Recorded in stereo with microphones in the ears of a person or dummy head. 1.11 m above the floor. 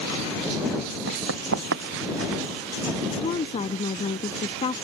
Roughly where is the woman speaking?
Left.